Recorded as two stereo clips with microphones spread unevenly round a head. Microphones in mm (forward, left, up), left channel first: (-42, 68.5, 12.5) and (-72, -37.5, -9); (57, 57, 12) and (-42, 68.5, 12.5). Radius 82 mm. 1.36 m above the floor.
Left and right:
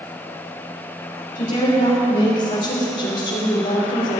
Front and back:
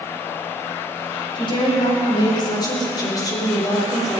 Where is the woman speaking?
35° left, 5 m; by 4.2 s 55° left, 3.5 m.